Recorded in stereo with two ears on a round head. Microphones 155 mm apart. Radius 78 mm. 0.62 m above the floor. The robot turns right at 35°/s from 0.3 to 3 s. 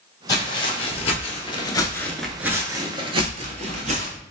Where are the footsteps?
20° left (ahead or behind), 1.1 m; by 4.1 s 45° right (ahead or behind), 1.1 m.